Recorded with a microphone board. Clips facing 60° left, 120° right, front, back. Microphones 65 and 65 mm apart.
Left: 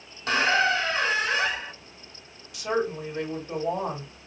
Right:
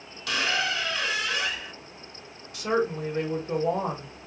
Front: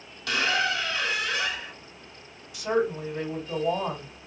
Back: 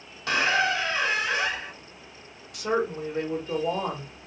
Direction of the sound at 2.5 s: 160° right.